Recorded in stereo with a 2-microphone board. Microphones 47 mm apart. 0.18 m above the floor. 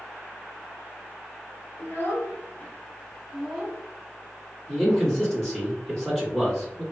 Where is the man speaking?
15° left (ahead or behind), 1.6 m.